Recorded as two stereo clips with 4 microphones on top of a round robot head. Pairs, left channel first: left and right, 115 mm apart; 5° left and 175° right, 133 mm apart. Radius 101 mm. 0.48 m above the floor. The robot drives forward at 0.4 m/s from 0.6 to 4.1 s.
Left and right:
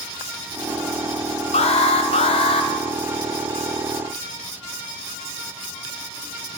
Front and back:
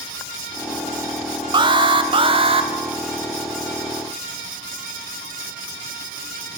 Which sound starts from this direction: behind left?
An alarm, at 1.5 s.